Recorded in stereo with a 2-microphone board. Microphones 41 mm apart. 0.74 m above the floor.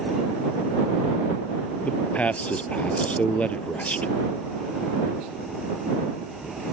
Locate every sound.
1.8 s a man speaking: 40° left (ahead or behind)